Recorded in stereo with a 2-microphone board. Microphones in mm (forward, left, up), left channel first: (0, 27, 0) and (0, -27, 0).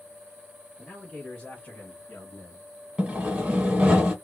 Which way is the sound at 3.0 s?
20° right (ahead or behind).